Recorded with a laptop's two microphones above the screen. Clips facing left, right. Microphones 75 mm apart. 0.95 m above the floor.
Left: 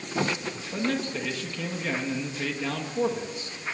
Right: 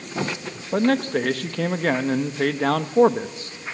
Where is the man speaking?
55° right (ahead or behind), 1.2 m.